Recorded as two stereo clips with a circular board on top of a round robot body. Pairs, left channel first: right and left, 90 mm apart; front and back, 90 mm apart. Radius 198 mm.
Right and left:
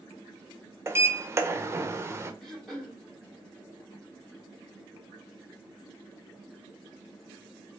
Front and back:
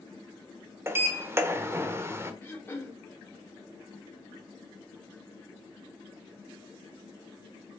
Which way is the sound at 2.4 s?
15° right.